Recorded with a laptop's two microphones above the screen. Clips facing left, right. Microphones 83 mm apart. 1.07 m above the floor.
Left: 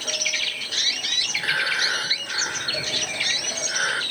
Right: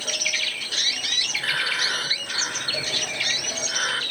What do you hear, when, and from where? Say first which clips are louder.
1.4 s breathing: left 3 dB; 15° left (ahead or behind), 1.2 m